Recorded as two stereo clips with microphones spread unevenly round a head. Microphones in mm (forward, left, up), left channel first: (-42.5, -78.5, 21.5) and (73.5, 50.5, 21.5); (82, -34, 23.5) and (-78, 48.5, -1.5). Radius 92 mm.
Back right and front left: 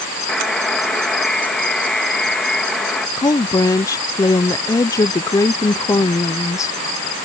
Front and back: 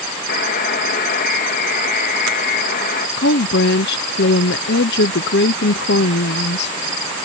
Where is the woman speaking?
60° right.